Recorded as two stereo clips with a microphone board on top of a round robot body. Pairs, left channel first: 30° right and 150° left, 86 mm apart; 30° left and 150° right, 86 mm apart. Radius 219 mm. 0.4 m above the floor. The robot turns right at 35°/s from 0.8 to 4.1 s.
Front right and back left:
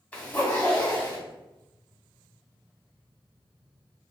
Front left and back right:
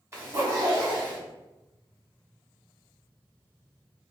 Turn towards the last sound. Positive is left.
turn(degrees=15)